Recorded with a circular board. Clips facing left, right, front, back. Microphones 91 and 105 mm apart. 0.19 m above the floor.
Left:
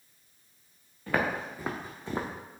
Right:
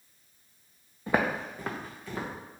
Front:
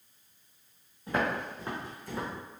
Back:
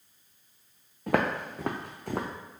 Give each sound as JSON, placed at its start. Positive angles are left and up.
{"t": 1.1, "sound": "footsteps", "azimuth_deg": -160, "distance_m": 1.1}